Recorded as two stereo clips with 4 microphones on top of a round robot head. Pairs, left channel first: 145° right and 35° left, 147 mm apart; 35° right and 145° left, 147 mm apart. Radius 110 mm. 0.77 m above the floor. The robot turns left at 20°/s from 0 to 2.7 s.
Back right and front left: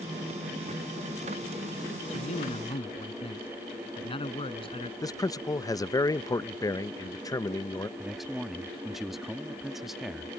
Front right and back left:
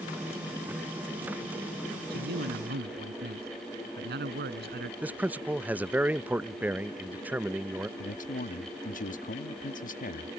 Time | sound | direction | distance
2.1 | a man speaking | 165° left | ?
5.0 | a man speaking | 150° right | ?
8.0 | a man speaking | 55° right | ?